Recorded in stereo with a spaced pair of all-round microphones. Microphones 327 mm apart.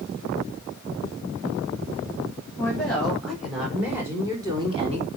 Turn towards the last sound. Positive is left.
turn(degrees=-20)  # may be behind; listen again after turning